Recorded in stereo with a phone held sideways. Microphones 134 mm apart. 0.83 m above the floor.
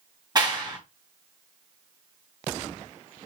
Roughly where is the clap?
Right.